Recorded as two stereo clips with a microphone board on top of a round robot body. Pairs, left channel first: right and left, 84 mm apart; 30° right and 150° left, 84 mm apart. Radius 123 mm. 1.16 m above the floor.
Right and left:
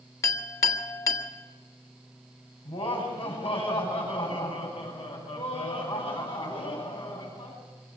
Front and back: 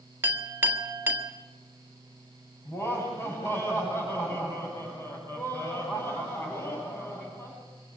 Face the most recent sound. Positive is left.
turn(degrees=-85)